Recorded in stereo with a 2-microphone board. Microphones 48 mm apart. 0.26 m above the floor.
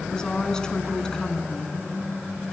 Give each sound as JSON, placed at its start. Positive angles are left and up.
{"t": 0.1, "sound": "a woman speaking", "side_deg": 15, "distance_m": 2.5}